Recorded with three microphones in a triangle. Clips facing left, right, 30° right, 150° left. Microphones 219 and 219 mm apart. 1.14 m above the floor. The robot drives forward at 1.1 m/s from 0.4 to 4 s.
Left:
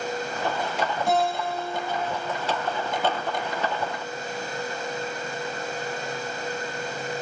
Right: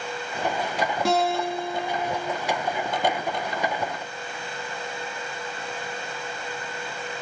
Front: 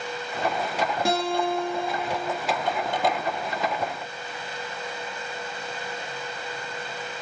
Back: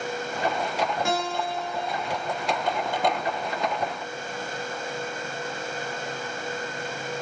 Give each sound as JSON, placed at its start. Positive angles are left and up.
{"t": 1.1, "sound": "a guitar", "azimuth_deg": -85, "distance_m": 8.0}